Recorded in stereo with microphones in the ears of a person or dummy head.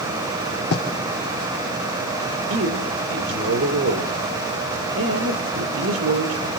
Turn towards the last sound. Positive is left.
turn(degrees=-80)